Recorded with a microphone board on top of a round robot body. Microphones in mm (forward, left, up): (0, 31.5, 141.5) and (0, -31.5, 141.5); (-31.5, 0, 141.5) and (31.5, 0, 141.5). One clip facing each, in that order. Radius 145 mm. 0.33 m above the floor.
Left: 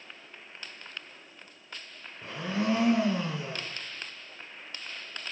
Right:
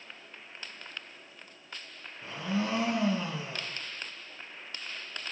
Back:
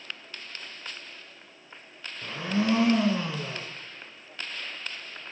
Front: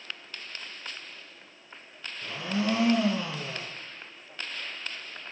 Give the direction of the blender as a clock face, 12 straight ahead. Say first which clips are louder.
Left 2 dB, back 2 dB; 8 o'clock.